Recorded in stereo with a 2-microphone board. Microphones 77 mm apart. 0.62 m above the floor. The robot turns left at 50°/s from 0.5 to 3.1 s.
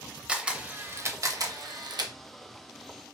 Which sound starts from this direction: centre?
A camera shutter, at 0.3 s.